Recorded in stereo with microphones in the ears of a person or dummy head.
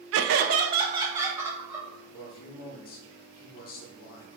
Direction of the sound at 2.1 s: 45° left (ahead or behind).